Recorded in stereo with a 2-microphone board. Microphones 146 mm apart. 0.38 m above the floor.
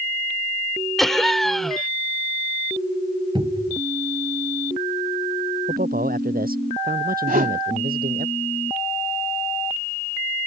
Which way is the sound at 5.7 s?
80° right.